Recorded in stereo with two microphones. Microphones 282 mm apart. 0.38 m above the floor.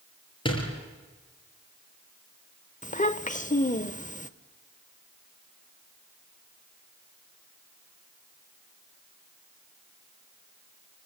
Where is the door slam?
20° left (ahead or behind), 6 m.